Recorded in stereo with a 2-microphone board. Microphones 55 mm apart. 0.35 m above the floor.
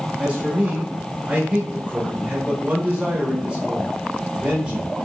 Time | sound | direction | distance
0.2 | a man speaking | 15° right (ahead or behind) | 0.9 m